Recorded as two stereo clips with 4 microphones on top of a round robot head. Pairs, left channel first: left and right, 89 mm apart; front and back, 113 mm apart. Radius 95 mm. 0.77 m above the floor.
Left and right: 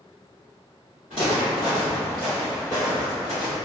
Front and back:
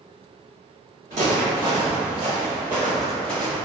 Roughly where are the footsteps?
Behind right.